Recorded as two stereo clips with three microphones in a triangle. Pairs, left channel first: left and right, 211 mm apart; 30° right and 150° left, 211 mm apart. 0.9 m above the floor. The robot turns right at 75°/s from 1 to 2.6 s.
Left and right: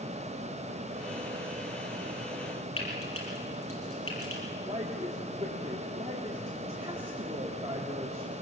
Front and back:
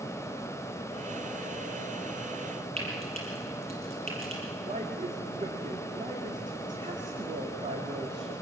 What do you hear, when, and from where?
2.8 s frying: 90° left, 6 m
4.7 s a woman speaking: 155° right, 1.8 m